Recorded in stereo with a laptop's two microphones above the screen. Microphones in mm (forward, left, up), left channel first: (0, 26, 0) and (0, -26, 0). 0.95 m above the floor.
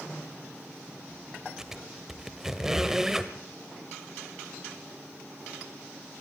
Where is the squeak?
10° right (ahead or behind), 1.3 m.